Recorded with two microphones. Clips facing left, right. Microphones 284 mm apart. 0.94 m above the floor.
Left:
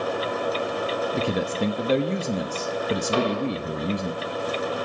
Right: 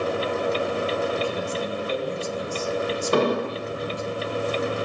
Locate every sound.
1.1 s a man speaking: 70° left (ahead or behind), 0.9 m
3.1 s an explosion: 55° right (ahead or behind), 1.5 m